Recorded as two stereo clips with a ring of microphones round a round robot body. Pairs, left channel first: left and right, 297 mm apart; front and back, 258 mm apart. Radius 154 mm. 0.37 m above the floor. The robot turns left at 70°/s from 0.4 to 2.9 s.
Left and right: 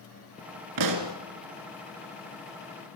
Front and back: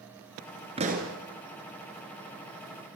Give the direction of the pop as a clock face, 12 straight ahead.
4 o'clock.